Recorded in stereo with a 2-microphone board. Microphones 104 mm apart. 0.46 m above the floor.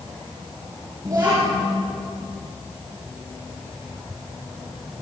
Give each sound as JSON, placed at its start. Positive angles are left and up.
{"t": 1.1, "sound": "a child speaking", "side_deg": -35, "distance_m": 5.5}